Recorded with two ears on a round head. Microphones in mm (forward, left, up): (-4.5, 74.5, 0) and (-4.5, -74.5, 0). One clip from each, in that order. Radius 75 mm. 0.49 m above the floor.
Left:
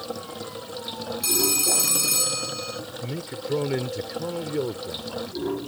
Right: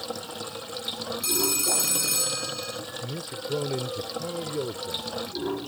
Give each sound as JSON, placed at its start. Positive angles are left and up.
{"t": 0.0, "sound": "running water", "side_deg": -25}
{"t": 1.2, "sound": "a phone ringing", "side_deg": 5}
{"t": 3.0, "sound": "a man speaking", "side_deg": 40}